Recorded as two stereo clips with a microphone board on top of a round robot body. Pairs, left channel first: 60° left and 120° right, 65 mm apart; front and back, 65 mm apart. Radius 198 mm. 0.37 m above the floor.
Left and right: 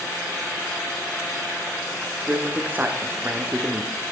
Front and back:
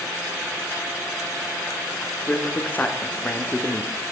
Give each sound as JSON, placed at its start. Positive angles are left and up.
{"t": 2.0, "sound": "a man speaking", "azimuth_deg": -60, "distance_m": 1.5}